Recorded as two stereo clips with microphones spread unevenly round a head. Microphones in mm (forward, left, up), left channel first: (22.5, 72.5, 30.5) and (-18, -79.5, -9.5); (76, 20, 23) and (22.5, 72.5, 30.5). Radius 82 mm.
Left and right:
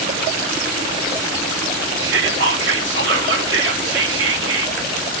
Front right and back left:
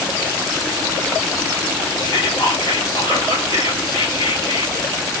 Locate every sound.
2.0 s whispering: 100° right, 3.5 m